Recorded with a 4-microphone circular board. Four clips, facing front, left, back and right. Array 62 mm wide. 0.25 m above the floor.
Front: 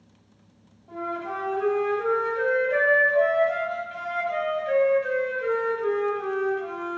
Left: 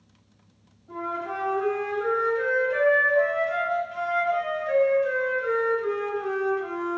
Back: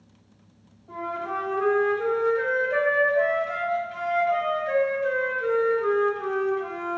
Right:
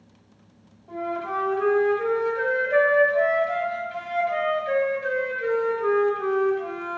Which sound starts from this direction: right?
A flute, at 0.9 s.